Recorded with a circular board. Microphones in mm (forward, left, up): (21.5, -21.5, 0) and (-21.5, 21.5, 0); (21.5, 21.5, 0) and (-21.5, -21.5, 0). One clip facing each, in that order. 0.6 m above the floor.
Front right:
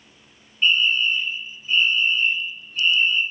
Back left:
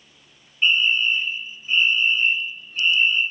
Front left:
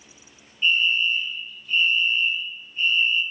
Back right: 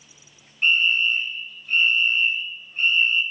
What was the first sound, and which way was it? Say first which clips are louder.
A fire alarm: even, back right 1 dB; 155° right.